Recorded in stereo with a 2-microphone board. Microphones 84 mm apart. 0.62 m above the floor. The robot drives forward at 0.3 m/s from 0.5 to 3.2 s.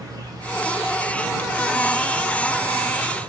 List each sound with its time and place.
0.0 s an insect: 50° right (ahead or behind), 1.3 m; by 3.3 s 90° right, 1.0 m